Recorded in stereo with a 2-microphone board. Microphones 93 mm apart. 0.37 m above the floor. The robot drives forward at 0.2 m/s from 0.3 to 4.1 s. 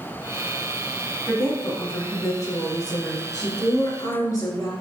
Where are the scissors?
No scissors in this recording.